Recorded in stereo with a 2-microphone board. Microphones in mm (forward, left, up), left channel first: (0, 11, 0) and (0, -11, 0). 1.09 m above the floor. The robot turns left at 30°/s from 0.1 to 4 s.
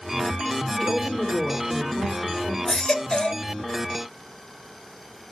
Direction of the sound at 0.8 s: 10° left.